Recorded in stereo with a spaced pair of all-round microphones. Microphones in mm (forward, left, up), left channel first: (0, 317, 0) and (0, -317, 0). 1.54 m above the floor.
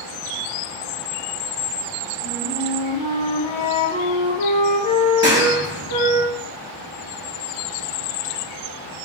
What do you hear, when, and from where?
2.2 s a flute: 35° left (ahead or behind), 2.5 m
5.2 s a clap: 20° right (ahead or behind), 2.5 m